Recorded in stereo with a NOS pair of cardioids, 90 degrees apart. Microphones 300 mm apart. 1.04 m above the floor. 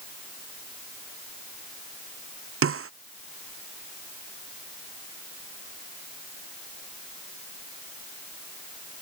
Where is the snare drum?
45° right.